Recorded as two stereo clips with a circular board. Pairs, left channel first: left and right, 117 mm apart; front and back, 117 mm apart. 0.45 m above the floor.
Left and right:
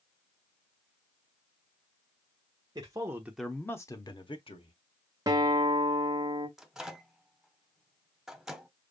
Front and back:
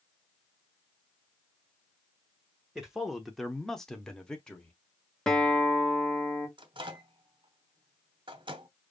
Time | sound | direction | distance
2.8 | a man speaking | 100° right | 0.9 m
5.3 | a guitar | 80° right | 1.0 m
6.6 | a microwave | 175° right | 0.8 m